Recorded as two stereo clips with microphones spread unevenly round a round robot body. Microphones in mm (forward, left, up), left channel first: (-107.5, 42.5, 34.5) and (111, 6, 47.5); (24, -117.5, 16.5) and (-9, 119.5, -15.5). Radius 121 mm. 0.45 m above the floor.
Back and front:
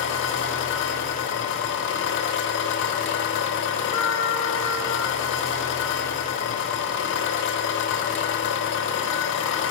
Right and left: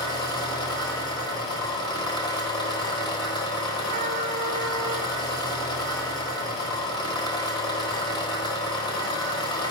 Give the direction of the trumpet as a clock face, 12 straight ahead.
8 o'clock.